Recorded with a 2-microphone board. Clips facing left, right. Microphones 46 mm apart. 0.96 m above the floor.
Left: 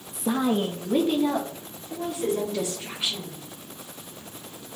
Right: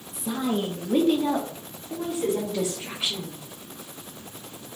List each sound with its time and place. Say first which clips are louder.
0.1 s a woman speaking: left 3 dB; 50° left (ahead or behind), 0.7 m; by 3.4 s 25° right (ahead or behind), 4.5 m